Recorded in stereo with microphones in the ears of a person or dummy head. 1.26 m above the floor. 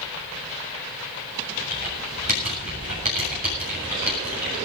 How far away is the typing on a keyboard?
About 7.5 m.